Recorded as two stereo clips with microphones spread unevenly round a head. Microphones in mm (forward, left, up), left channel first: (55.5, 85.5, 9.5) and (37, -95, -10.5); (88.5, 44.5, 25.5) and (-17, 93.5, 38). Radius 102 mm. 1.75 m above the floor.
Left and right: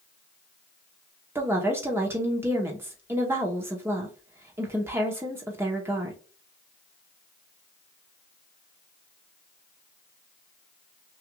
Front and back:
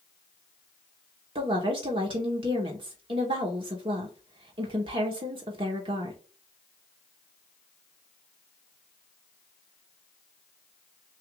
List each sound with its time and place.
1.4 s a woman speaking: 175° right, 0.8 m